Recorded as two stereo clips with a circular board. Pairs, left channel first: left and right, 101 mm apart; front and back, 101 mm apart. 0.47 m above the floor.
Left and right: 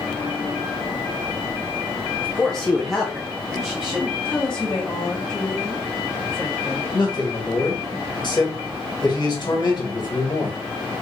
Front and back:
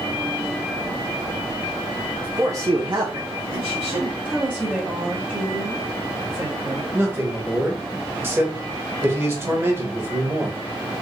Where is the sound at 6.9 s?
120° left, 1.4 m.